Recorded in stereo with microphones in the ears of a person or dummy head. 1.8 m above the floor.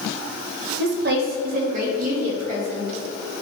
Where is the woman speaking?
60° right (ahead or behind), 2 m; by 3.3 s 30° right (ahead or behind), 5.5 m.